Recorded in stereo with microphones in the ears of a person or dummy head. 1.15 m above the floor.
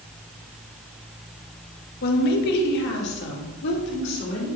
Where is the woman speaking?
50° left (ahead or behind), 0.9 m; by 4.6 s 65° left (ahead or behind), 3.5 m.